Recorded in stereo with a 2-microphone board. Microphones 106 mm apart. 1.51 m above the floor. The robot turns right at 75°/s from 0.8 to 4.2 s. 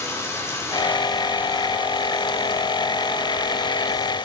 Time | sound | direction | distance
0.0 | running water | 155° left | 3.5 m